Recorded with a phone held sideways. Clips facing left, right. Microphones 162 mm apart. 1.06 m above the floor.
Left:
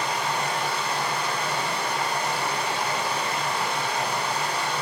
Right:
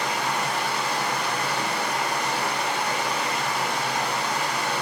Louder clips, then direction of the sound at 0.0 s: Even; 85° right.